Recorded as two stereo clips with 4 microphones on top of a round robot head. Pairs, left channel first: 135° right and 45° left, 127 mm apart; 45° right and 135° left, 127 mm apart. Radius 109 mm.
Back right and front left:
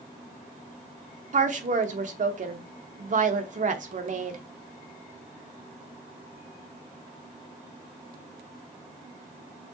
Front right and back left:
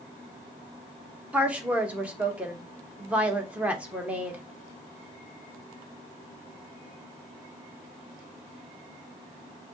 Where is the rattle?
No rattle in this recording.